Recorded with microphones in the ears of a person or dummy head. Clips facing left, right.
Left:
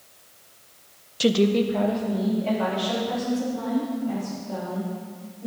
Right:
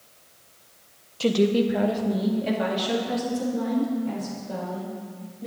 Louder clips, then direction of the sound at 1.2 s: Left 1 dB; 20° left (ahead or behind).